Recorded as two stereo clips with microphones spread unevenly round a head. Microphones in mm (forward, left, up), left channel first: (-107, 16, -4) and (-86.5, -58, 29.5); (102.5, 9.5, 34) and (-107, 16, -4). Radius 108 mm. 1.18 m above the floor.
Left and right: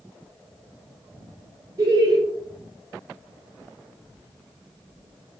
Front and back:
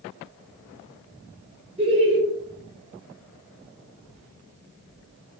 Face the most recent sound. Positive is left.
turn(degrees=-135)